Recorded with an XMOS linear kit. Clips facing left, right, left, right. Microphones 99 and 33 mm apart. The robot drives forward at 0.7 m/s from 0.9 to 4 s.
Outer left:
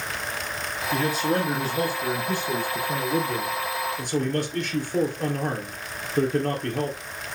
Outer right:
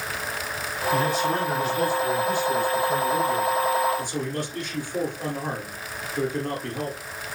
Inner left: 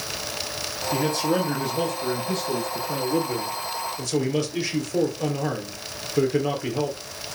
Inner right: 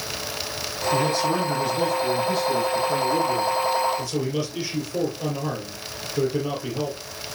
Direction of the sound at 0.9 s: 45° left (ahead or behind).